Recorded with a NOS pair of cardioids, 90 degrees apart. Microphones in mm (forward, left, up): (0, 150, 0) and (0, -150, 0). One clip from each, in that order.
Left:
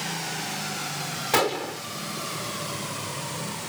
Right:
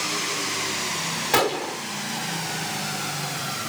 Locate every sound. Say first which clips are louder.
1.3 s a gunshot: right 1 dB; 10° right